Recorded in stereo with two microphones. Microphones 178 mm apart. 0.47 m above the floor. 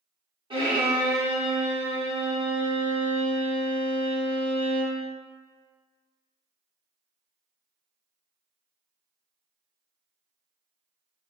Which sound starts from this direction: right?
A violin, at 0.5 s.